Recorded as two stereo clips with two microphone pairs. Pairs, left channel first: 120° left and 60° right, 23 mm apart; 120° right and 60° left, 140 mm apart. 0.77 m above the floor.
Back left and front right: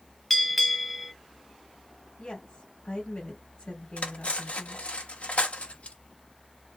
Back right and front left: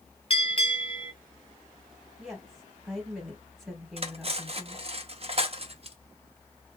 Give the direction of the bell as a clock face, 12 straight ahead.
5 o'clock.